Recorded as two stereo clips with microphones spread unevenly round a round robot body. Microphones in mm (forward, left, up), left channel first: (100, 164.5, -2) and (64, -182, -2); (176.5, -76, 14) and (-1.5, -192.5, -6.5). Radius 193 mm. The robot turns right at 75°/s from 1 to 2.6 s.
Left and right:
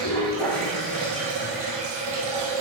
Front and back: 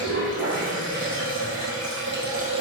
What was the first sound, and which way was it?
Running water, 160° left.